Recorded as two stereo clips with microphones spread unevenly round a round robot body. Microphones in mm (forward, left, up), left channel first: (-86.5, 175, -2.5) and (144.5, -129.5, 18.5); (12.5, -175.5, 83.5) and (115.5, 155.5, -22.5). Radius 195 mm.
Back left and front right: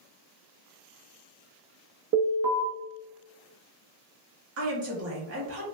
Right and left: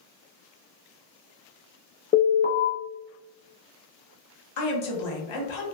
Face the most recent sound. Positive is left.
turn(degrees=-110)